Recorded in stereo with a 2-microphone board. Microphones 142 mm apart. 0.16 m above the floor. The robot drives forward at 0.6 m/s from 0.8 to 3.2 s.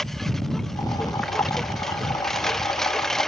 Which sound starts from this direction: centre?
A lawn mower, at 0.0 s.